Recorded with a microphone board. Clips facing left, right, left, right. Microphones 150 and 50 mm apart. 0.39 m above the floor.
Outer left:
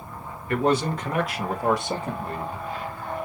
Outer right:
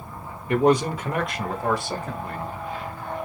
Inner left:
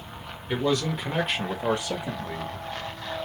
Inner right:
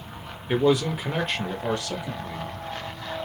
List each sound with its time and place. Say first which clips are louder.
0.5 s a man speaking: outer right 3 dB, inner right 4 dB; 20° right (ahead or behind), 1.0 m; by 2.7 s 40° left (ahead or behind), 1.2 m